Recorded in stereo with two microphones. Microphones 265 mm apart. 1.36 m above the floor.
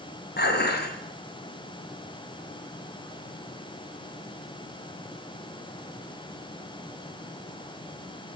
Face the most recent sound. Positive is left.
turn(degrees=40)  # may be behind; listen again after turning